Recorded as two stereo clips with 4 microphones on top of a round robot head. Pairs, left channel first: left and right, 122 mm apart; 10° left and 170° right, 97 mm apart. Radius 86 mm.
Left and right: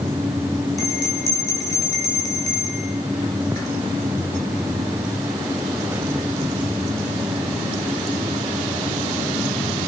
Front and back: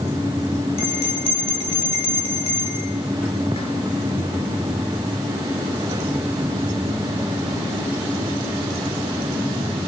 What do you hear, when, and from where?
0.8 s a bell: 25° left, 5 m